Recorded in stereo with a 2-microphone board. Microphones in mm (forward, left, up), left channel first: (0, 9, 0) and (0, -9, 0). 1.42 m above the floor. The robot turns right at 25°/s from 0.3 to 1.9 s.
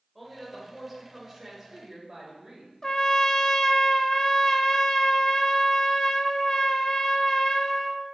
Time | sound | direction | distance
0.1 | a woman speaking | straight behind | 5 m
2.8 | a trumpet | 30° left (ahead or behind) | 0.8 m